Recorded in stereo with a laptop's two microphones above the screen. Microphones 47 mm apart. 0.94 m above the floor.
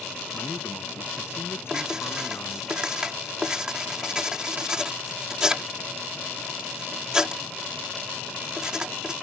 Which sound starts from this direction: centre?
Writing, at 1.7 s.